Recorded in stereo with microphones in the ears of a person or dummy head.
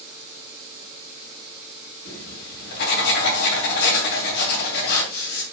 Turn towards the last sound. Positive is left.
turn(degrees=60)  # may be behind; listen again after turning